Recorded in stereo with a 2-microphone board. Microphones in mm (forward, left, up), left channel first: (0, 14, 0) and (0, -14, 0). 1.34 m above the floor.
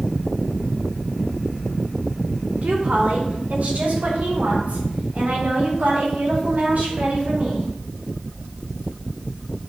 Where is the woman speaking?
60° right (ahead or behind), 1.7 m; by 7.7 s 70° right (ahead or behind), 4.5 m.